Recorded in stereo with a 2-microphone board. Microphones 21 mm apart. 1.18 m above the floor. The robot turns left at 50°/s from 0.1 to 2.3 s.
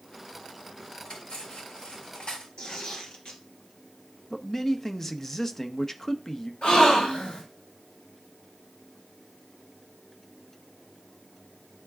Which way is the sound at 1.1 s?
65° left (ahead or behind).